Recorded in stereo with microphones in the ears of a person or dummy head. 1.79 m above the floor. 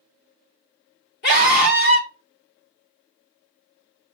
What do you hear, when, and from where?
1.2 s a scream: 50° left (ahead or behind), 1.0 m